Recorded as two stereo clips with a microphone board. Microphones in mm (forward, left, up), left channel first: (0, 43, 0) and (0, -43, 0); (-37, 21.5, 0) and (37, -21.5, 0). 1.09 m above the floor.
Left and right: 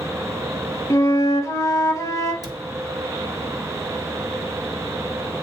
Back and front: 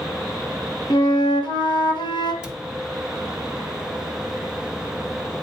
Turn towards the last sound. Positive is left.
turn(degrees=-105)